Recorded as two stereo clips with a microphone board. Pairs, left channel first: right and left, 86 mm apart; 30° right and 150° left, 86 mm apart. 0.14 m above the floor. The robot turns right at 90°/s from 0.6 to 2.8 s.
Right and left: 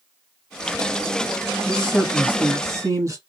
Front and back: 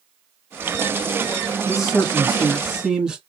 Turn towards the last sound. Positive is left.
turn(degrees=75)